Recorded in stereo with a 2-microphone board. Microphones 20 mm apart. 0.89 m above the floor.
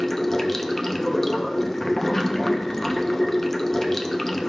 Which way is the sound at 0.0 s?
25° left (ahead or behind).